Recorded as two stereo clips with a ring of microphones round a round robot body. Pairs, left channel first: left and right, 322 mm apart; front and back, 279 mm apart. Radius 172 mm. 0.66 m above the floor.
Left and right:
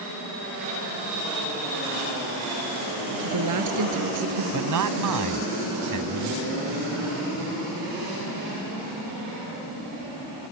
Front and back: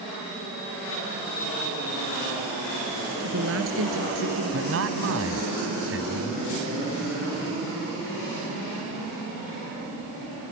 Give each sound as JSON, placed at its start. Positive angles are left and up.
{"t": 3.2, "sound": "a woman speaking", "azimuth_deg": -125}
{"t": 4.5, "sound": "a man speaking", "azimuth_deg": -125}